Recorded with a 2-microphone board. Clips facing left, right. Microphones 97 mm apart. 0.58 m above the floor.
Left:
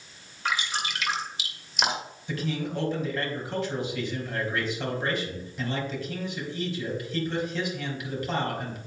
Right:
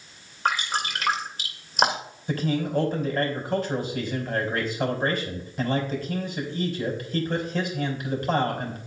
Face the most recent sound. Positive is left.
turn(degrees=-45)  # may be behind; listen again after turning